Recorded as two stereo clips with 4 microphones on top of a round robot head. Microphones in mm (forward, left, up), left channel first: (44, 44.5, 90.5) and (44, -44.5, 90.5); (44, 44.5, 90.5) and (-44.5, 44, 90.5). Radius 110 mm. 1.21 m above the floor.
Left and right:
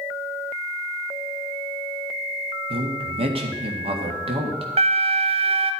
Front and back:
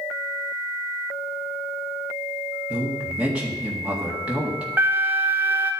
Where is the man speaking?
100° right, 2.0 m.